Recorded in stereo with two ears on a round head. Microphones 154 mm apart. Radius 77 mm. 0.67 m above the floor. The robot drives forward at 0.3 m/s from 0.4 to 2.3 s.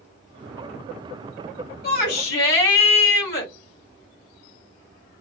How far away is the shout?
About 2.5 m.